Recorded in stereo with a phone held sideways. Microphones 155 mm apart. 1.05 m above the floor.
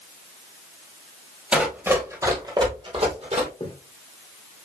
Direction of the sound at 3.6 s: 35° left (ahead or behind).